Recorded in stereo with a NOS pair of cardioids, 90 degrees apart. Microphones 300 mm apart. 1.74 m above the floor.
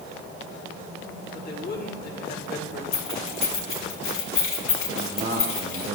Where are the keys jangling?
45° left, 2 m.